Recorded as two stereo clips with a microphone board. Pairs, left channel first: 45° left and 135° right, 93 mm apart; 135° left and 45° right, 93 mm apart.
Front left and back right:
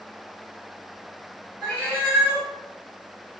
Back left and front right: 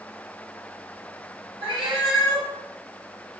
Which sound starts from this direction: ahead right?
A cat meowing, at 1.6 s.